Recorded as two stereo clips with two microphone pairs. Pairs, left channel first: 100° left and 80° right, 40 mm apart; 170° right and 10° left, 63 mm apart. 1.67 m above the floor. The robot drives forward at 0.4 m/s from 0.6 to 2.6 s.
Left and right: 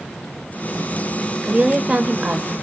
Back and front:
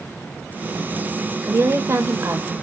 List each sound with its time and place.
1.4 s a woman speaking: 20° right, 1.1 m; by 2.5 s 35° right, 0.8 m